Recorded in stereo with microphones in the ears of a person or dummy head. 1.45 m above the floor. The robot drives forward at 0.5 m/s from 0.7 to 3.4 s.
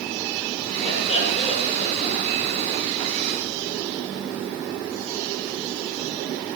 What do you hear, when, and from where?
0.8 s laughter: 30° left (ahead or behind), 7.5 m; by 2.3 s 35° left (ahead or behind), 7 m